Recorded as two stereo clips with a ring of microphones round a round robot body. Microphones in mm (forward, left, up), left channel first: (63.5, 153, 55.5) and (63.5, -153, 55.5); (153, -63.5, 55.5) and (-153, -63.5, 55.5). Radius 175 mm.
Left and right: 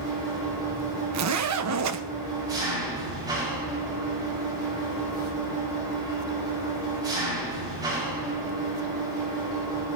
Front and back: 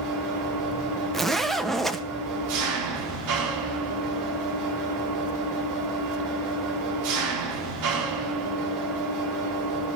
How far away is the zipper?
About 1.2 m.